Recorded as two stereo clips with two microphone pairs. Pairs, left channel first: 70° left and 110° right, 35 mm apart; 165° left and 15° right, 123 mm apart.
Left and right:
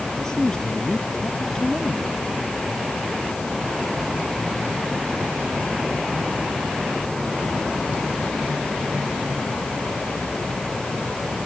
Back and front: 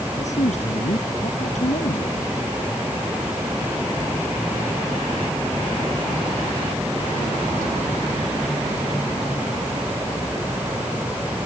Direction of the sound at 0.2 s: 145° left.